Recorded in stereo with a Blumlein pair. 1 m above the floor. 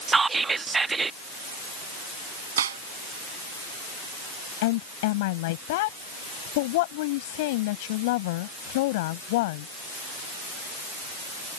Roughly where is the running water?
I don't hear running water.